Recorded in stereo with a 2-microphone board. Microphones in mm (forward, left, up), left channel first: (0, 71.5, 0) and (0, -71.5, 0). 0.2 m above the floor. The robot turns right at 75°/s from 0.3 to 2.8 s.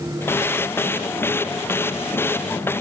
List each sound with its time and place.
Only background noise.